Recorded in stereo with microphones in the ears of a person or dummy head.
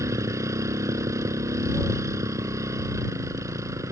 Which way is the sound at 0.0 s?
20° right (ahead or behind).